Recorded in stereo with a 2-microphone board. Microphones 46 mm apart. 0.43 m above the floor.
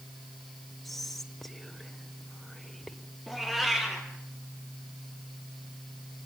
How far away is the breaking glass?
No breaking glass in this recording.